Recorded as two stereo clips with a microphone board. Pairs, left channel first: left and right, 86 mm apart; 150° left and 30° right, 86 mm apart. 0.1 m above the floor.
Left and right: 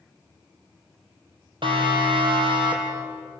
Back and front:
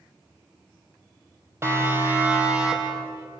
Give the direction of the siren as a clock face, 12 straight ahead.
3 o'clock.